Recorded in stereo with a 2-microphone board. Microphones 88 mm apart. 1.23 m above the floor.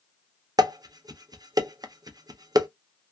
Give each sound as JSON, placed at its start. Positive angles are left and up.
{"t": 0.6, "sound": "dishes clattering", "side_deg": -45, "distance_m": 0.5}